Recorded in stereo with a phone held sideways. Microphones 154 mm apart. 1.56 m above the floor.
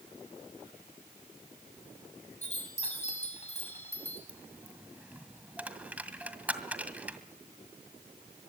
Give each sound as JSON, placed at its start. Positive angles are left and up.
{"t": 2.4, "sound": "a chime", "side_deg": 45, "distance_m": 6.0}
{"t": 4.3, "sound": "a dropped coin", "side_deg": -10, "distance_m": 1.9}